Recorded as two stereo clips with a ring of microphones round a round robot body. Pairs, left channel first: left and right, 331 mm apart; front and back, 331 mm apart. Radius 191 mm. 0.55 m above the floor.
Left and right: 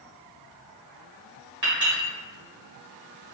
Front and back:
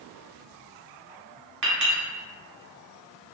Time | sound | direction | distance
1.6 | a clink | 165° right | 1.0 m